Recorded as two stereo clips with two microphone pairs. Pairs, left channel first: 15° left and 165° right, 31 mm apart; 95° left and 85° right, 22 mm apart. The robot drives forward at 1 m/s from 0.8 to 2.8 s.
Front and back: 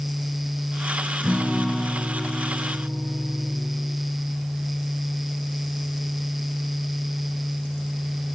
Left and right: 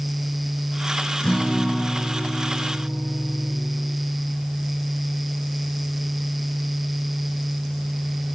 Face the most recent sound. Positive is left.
turn(degrees=150)